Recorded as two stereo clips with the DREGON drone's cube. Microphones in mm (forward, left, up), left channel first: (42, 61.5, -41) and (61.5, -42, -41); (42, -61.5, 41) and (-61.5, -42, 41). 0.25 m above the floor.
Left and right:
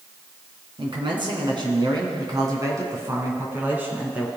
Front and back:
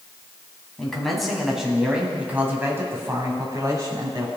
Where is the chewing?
No chewing in this recording.